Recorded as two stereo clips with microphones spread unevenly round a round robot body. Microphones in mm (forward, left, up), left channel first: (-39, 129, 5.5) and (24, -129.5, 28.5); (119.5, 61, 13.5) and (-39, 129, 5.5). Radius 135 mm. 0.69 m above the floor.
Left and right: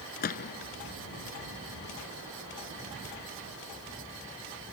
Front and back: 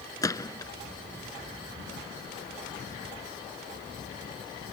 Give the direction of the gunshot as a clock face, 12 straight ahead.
10 o'clock.